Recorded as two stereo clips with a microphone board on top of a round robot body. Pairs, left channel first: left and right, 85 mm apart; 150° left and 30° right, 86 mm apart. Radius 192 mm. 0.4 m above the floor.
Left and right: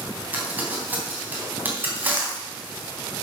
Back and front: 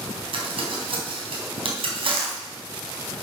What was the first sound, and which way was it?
Crumpling, 20° right.